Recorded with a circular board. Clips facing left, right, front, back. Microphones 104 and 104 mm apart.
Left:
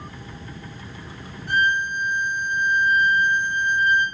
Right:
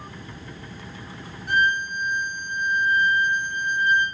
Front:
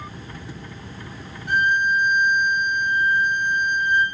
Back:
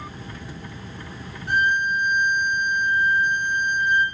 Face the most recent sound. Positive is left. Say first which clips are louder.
# left 1 dB, front 2 dB
turn(degrees=-150)